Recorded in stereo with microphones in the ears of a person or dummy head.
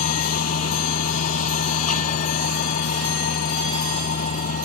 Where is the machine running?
45° left (ahead or behind).